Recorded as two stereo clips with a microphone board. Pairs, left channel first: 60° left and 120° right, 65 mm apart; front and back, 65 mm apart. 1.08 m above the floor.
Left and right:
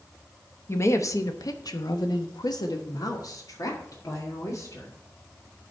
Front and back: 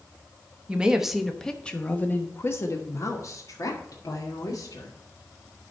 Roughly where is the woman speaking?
Left.